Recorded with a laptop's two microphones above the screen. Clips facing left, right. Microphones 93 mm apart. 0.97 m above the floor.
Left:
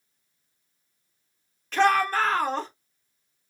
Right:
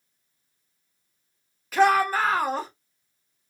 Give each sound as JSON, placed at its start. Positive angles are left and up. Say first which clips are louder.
{"t": 1.7, "sound": "a shout", "louder": "right 2 dB", "side_deg": -10, "distance_m": 0.7}